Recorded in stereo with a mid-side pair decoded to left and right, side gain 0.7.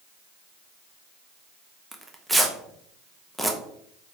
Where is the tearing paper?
5° right, 0.7 m.